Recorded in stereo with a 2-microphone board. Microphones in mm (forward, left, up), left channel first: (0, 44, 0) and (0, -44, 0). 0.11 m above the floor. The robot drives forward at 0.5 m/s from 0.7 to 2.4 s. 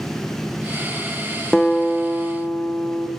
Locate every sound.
1.5 s a guitar: 10° left (ahead or behind), 1.4 m; by 3.1 s 5° left (ahead or behind), 1.8 m